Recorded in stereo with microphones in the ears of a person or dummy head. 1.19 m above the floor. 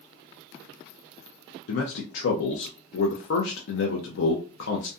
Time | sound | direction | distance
1.7 | a man speaking | 70° left (ahead or behind) | 0.6 m